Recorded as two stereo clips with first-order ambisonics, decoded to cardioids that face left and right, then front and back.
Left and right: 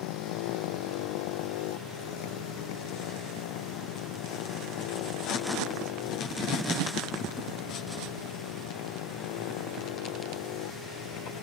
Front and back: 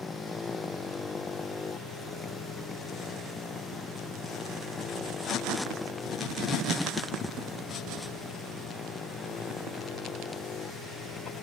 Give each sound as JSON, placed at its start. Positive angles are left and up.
{"t": 0.0, "sound": "a motorcycle", "azimuth_deg": 80}